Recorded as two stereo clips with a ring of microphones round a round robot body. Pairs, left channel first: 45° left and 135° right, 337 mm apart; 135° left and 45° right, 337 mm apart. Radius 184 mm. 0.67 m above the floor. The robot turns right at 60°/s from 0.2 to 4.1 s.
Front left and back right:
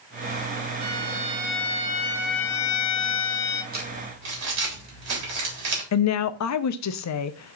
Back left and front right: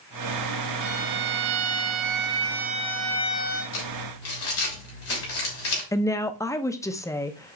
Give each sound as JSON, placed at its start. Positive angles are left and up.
{"t": 0.8, "sound": "a violin", "azimuth_deg": -90, "distance_m": 1.0}
{"t": 3.7, "sound": "crumpling", "azimuth_deg": 160, "distance_m": 3.5}
{"t": 5.9, "sound": "a woman speaking", "azimuth_deg": 55, "distance_m": 0.7}